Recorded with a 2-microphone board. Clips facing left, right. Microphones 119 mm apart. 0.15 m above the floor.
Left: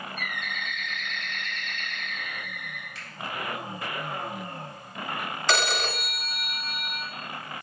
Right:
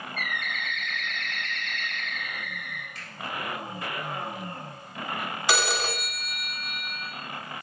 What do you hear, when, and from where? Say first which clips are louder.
0.2 s a bird: right 4 dB; 60° right (ahead or behind), 2.5 m
3.0 s a finger snap: even; 40° right (ahead or behind), 1.4 m
5.5 s a phone ringing: left 1 dB; 5° right (ahead or behind), 0.6 m